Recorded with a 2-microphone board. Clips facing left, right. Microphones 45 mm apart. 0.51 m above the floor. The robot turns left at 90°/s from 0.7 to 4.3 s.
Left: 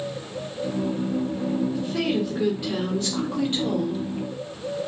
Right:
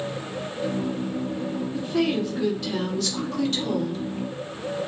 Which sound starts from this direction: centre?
A woman speaking, at 1.7 s.